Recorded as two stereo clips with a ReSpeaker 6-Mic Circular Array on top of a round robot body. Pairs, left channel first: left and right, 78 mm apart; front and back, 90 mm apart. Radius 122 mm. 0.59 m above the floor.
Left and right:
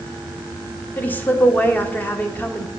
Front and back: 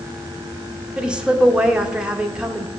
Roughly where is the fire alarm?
I don't hear a fire alarm.